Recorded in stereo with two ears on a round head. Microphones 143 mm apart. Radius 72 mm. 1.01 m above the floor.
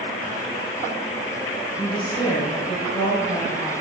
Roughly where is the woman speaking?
Left.